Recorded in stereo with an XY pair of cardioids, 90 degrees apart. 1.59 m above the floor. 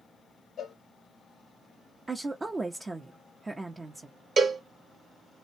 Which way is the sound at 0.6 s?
65° left.